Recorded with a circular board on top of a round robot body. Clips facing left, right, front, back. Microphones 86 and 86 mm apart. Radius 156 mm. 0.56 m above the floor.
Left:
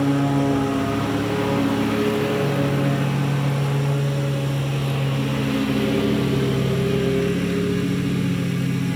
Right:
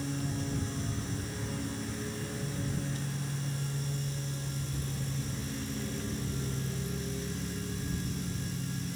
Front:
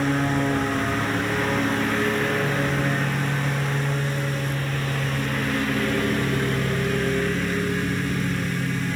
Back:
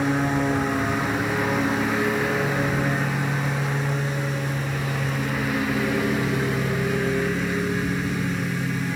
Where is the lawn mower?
95° left.